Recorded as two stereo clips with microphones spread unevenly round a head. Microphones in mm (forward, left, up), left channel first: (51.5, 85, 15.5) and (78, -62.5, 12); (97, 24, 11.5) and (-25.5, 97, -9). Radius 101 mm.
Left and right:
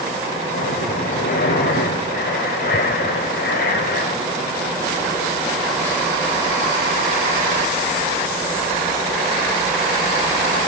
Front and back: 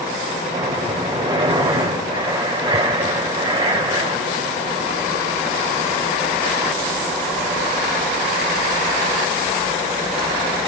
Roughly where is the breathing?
Left.